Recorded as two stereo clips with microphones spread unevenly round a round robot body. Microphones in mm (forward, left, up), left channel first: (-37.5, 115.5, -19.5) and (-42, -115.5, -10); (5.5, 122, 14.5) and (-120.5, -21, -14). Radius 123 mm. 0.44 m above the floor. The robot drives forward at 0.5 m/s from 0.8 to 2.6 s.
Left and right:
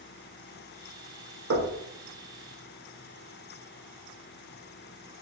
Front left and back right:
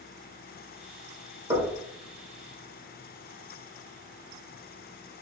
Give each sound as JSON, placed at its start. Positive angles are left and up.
{"t": 1.5, "sound": "knocking", "azimuth_deg": -70, "distance_m": 0.7}